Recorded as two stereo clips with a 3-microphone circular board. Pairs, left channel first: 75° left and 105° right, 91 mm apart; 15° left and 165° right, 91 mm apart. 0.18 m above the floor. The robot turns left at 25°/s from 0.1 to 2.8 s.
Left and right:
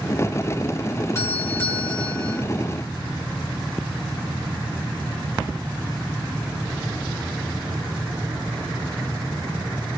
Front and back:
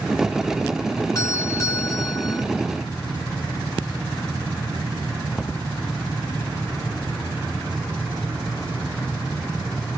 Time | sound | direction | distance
1.1 | a doorbell | 35° left | 2 m